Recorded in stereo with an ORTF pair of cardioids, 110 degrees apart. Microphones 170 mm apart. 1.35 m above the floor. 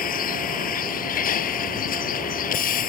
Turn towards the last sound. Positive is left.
turn(degrees=55)